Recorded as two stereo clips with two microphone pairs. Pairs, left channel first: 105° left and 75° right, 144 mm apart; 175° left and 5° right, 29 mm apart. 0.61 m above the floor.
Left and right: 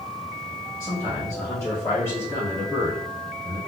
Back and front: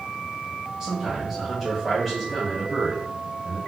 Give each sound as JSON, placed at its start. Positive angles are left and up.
{"t": 0.8, "sound": "a man speaking", "azimuth_deg": 45, "distance_m": 1.5}